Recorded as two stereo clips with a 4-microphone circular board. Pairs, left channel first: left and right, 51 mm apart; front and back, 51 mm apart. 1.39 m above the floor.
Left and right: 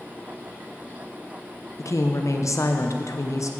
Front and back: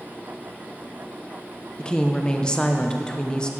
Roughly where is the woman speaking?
Left.